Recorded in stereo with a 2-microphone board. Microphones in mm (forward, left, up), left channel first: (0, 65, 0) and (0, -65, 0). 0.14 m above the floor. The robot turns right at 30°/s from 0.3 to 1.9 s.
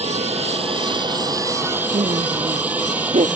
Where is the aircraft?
60° right (ahead or behind); by 3.4 s 10° right (ahead or behind).